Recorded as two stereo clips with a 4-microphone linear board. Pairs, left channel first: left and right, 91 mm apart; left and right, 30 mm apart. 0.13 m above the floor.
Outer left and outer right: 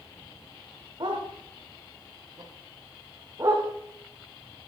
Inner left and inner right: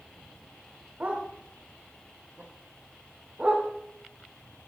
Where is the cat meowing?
I don't hear a cat meowing.